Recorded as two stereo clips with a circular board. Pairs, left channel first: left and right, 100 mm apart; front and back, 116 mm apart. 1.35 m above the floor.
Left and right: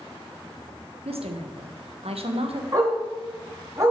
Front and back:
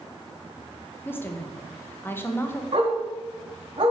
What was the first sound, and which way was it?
A woman speaking, 75° right.